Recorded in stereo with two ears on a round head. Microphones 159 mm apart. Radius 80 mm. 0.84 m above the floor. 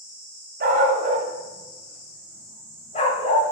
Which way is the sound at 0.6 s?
55° right (ahead or behind).